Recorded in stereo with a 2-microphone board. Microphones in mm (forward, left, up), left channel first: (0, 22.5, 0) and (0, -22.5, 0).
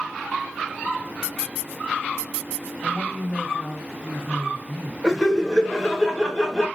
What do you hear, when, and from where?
2.8 s a woman speaking: 20° left (ahead or behind), 1.4 m
5.0 s laughter: 10° left (ahead or behind), 1.0 m